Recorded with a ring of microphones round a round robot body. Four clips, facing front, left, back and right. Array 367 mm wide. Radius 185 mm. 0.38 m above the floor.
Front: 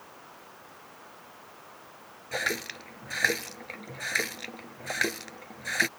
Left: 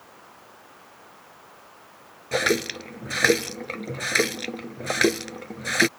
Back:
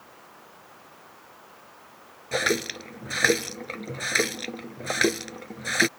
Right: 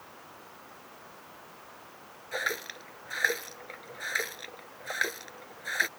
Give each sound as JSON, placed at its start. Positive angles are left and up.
{"t": 2.3, "sound": "a running tap", "azimuth_deg": 115}